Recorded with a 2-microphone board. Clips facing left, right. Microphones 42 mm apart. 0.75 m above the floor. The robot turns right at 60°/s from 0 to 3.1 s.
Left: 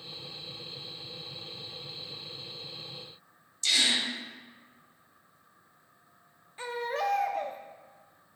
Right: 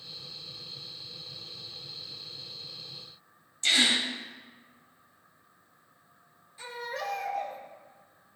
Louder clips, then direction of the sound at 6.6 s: Left 5 dB; 40° left (ahead or behind).